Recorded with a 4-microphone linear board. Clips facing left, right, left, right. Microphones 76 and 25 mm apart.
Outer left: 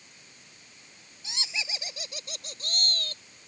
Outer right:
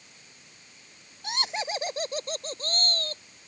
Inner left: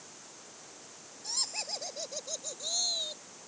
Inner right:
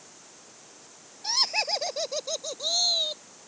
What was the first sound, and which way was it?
Laughter, 50° right (ahead or behind).